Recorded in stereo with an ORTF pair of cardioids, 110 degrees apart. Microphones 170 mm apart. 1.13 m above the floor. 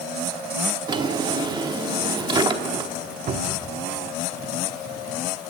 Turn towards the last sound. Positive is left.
turn(degrees=-45)